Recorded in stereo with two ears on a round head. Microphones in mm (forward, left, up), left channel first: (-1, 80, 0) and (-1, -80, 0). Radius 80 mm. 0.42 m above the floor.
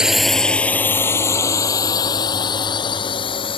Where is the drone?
5° right (ahead or behind); by 3.6 s 30° left (ahead or behind).